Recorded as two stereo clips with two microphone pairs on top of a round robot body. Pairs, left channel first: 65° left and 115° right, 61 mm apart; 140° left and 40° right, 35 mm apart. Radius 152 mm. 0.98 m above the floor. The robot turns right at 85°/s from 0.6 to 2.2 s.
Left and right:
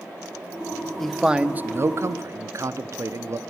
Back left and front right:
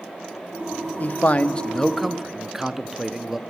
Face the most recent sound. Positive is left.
turn(degrees=-115)